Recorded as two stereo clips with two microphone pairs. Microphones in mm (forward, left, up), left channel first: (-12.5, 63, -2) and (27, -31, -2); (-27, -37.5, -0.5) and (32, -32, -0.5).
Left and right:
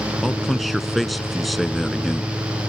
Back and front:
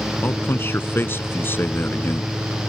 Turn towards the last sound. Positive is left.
turn(degrees=-155)